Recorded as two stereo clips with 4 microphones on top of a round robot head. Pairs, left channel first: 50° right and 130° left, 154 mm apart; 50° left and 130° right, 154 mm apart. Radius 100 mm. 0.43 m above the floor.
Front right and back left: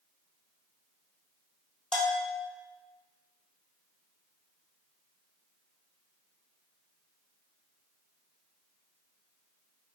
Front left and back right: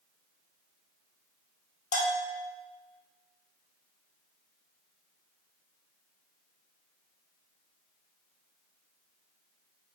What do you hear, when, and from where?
1.9 s a bell: 35° left, 2 m